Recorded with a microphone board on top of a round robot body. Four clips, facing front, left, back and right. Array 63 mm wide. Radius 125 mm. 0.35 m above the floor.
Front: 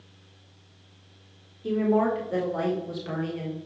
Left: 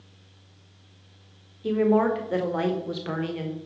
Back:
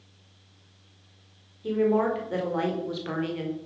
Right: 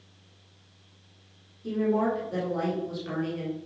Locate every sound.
1.6 s a woman speaking: 90° left, 2 m; by 3.6 s 135° left, 1.8 m